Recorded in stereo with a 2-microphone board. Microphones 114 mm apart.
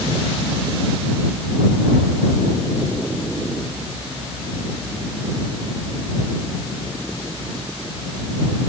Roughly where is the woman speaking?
I don't hear a woman speaking.